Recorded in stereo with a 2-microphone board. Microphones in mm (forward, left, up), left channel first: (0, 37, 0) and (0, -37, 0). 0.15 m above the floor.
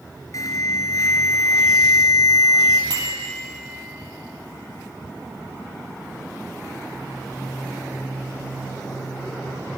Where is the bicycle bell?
75° right (ahead or behind), 3 m.